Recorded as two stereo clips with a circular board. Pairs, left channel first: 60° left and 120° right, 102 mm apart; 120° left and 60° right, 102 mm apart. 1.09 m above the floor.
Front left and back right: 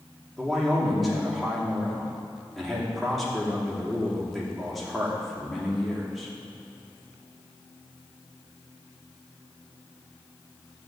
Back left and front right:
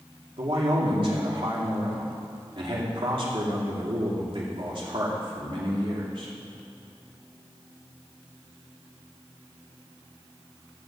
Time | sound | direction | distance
0.4 | a man speaking | 30° right | 2.5 m